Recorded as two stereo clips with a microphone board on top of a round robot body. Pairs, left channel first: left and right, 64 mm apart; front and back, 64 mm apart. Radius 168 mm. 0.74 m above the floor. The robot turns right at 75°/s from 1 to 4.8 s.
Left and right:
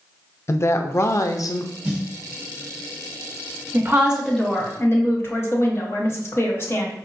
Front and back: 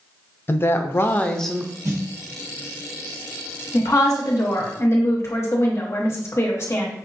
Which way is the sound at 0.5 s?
50° left.